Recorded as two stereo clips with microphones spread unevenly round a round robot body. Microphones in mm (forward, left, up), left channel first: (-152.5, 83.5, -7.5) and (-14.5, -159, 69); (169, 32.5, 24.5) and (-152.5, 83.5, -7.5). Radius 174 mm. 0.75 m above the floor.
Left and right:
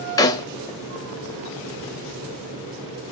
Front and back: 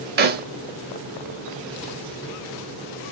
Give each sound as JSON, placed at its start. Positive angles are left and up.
{"t": 0.2, "sound": "a snare drum", "azimuth_deg": -145, "distance_m": 0.5}